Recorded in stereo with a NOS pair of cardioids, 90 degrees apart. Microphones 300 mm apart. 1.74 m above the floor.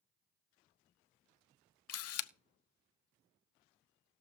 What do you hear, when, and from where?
1.9 s a camera shutter: 55° left, 0.8 m